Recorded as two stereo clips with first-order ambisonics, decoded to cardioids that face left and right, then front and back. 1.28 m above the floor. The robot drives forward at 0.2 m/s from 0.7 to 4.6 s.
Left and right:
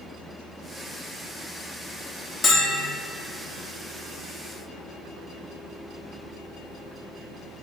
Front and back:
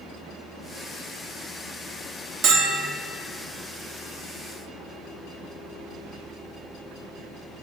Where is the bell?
155° left, 0.8 m; by 3.0 s 160° left, 0.8 m.